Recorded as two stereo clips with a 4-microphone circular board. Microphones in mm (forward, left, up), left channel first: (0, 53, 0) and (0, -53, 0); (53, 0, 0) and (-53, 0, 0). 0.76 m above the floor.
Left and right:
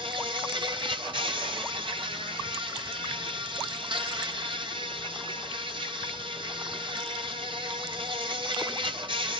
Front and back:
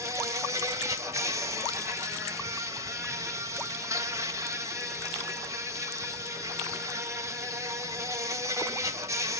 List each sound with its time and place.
0.0 s an insect: 120° right, 1.7 m